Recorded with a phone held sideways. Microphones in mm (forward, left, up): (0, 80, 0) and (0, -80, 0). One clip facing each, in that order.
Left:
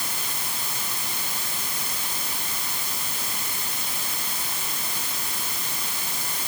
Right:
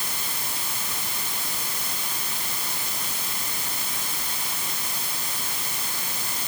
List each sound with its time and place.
Only background noise.